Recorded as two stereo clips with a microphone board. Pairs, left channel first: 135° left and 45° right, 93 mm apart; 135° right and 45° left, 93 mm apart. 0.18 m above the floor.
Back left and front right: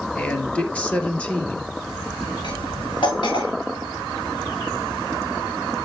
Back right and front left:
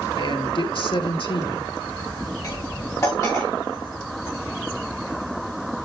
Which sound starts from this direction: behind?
Cutlery clinking, at 2.4 s.